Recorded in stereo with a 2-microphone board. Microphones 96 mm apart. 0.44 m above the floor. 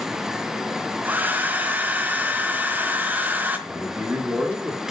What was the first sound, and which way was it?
A hair dryer, 20° right (ahead or behind).